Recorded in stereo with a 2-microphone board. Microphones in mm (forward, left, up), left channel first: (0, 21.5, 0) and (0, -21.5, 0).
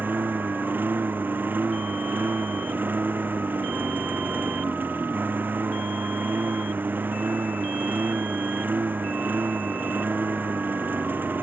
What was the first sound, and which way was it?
A lawn mower, 45° right (ahead or behind).